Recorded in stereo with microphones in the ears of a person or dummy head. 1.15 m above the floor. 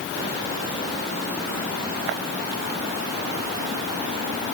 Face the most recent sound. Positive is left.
No sound to turn to.